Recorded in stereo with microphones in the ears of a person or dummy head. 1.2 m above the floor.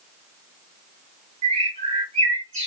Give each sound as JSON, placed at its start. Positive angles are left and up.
{"t": 1.4, "sound": "a bird", "side_deg": -35, "distance_m": 1.2}